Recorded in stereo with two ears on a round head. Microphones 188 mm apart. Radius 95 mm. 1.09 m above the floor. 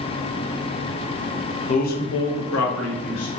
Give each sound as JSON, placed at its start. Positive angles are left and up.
{"t": 1.7, "sound": "a man speaking", "side_deg": 30, "distance_m": 0.7}